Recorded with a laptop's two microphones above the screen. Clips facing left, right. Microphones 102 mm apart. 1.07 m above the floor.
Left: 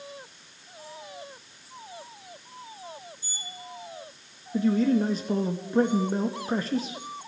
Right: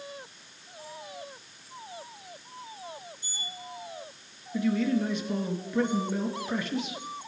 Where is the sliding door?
65° right (ahead or behind), 4 m.